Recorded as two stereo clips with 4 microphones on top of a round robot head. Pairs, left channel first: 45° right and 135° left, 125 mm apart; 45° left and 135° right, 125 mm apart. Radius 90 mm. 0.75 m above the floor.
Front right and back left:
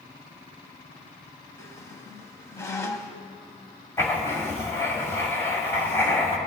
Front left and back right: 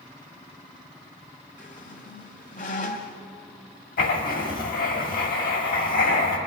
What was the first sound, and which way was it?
A squeak, 20° left.